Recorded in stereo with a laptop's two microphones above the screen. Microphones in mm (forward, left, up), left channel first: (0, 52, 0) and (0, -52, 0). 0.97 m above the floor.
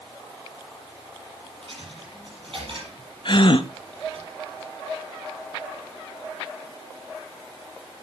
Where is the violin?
I don't hear a violin.